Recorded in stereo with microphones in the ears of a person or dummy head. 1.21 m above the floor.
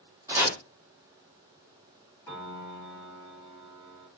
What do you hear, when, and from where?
0.3 s chopping: 15° right (ahead or behind), 0.9 m
2.3 s a piano: 15° left (ahead or behind), 1.7 m